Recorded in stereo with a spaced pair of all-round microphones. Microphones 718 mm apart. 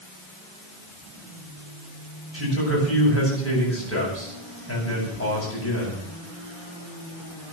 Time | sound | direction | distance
2.3 | a man speaking | 20° left (ahead or behind) | 9 m